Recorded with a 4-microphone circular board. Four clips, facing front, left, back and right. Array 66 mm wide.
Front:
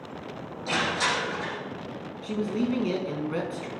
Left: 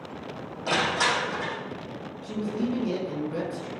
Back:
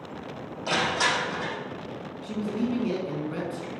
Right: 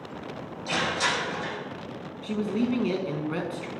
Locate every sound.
0.7 s crushing: 130° left, 6.5 m
2.2 s a man speaking: 75° right, 2 m